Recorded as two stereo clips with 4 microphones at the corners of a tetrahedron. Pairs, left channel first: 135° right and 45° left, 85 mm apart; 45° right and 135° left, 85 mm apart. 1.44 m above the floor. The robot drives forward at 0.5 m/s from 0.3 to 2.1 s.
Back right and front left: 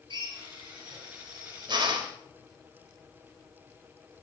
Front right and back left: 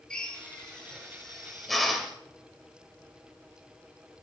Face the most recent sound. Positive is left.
turn(degrees=50)